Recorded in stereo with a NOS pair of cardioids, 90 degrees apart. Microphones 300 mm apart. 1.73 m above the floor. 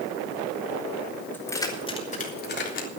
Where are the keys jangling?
5° left, 4 m; by 2.9 s 45° left, 3.5 m.